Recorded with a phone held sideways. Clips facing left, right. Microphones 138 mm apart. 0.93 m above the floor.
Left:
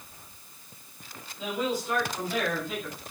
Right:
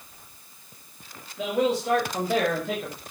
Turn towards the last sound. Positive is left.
turn(degrees=-75)  # may be behind; listen again after turning